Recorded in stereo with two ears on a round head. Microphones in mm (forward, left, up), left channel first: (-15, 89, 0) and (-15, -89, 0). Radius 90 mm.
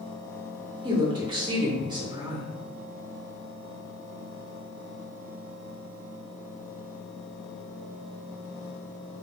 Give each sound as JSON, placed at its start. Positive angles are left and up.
{"t": 0.8, "sound": "a woman speaking", "side_deg": -20, "distance_m": 0.8}